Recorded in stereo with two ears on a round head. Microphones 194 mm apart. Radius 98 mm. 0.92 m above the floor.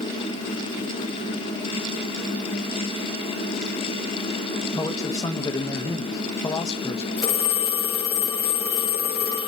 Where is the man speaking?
15° left (ahead or behind), 1.0 m.